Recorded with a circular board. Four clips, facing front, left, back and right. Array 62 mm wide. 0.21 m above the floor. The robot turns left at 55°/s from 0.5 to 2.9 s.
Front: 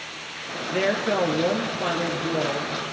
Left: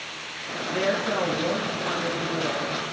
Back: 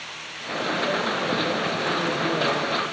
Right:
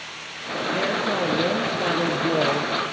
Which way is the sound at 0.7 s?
5° left.